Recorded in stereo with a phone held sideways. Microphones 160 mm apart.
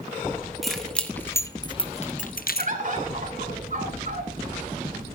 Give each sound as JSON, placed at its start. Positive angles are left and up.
{"t": 0.6, "sound": "keys jangling", "side_deg": 0, "distance_m": 1.5}
{"t": 2.6, "sound": "a bird", "side_deg": -55, "distance_m": 2.0}